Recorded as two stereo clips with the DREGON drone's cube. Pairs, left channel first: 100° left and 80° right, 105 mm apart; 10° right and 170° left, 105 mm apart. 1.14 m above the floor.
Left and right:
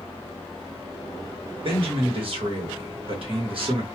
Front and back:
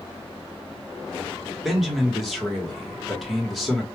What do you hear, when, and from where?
1.6 s a man speaking: 100° right, 1.4 m